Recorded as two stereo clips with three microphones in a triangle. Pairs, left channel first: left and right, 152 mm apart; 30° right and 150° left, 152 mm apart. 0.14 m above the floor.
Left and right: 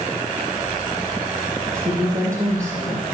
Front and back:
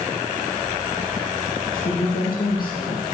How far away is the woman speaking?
About 6.5 m.